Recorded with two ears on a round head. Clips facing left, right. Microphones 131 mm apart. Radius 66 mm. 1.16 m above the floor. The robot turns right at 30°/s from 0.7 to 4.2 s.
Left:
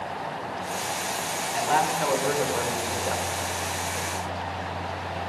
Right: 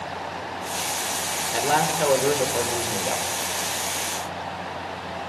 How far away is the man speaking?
About 4 m.